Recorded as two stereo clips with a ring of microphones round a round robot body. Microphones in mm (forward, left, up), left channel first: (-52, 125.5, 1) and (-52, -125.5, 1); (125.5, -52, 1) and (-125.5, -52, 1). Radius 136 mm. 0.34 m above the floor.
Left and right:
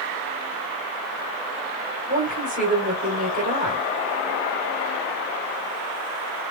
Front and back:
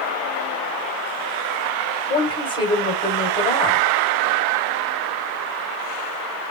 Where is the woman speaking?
55° right, 1.6 m.